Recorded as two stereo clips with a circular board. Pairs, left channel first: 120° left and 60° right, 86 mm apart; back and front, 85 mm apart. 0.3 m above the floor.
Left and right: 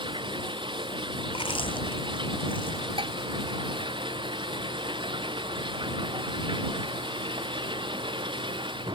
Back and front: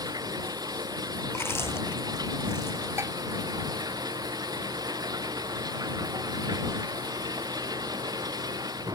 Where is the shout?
No shout in this recording.